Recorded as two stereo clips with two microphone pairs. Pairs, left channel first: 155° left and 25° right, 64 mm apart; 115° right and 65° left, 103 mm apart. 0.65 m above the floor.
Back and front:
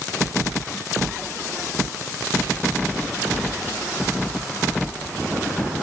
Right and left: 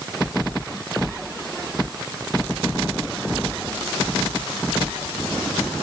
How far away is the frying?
No frying in this recording.